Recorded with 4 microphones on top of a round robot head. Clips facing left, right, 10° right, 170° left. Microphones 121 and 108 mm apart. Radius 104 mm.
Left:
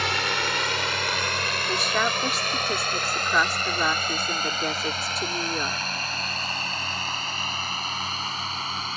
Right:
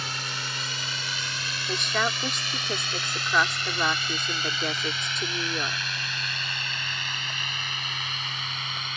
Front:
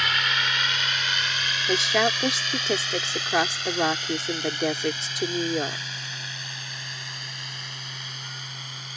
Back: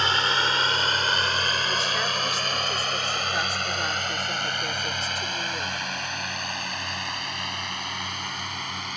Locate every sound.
0.0 s a drone: 115° left; by 9.0 s 145° left
1.7 s a woman speaking: 5° left